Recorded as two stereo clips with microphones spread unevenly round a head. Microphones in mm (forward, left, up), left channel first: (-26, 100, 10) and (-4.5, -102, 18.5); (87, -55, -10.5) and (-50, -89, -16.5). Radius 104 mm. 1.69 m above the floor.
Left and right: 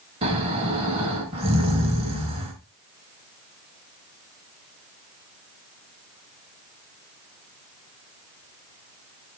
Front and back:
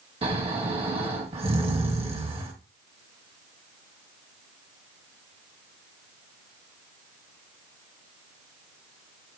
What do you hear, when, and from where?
0.2 s snoring: 135° right, 2 m